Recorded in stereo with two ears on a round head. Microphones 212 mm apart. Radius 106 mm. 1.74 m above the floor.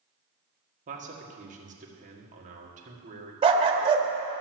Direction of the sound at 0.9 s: 35° right (ahead or behind).